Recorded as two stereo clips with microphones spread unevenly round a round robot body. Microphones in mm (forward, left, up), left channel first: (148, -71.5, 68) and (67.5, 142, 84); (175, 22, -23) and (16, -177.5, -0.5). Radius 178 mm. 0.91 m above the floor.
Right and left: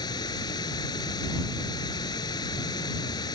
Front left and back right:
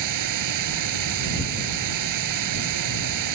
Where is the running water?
150° right.